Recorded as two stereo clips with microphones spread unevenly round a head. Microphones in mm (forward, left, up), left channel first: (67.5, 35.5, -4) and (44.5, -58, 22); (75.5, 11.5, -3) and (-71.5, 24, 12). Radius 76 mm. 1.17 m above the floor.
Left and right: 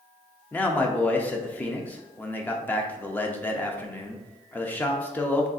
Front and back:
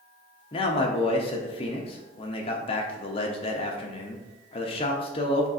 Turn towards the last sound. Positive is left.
turn(degrees=25)